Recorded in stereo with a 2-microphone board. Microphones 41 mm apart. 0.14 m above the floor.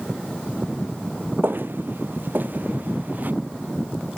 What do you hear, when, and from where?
1.4 s footsteps: 55° right (ahead or behind); by 3.3 s 45° right (ahead or behind)